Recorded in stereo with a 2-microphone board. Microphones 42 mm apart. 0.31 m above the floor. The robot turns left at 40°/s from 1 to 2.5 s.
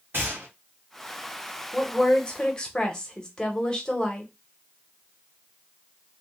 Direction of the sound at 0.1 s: 60° right (ahead or behind).